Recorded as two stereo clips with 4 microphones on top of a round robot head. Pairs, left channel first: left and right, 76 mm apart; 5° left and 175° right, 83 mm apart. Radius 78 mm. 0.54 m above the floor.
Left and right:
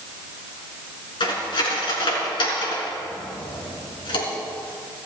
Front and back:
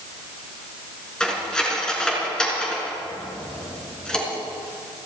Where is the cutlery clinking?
90° left, 4.5 m.